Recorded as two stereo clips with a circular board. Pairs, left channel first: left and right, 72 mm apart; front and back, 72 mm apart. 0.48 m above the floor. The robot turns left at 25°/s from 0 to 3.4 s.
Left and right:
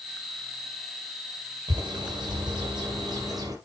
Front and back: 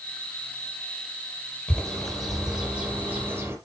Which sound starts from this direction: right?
A bird, at 1.7 s.